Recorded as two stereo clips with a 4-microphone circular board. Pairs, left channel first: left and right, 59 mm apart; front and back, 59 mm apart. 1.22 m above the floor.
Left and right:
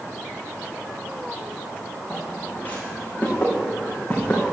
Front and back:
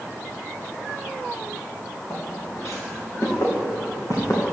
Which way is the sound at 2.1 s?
35° left.